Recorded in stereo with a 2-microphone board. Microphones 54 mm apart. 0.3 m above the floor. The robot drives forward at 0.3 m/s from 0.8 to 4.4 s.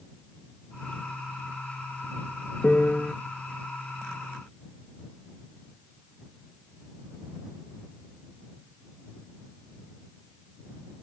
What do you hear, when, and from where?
2.6 s a piano: 25° left (ahead or behind)